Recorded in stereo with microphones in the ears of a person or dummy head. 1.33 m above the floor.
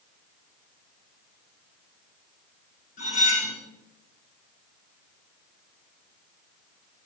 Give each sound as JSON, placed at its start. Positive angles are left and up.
{"t": 3.0, "sound": "cutlery clinking", "side_deg": 50, "distance_m": 2.0}